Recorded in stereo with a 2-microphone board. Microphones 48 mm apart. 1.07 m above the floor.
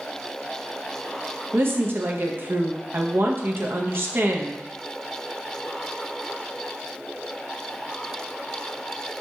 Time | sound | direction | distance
1.5 | a woman speaking | 50° right (ahead or behind) | 0.7 m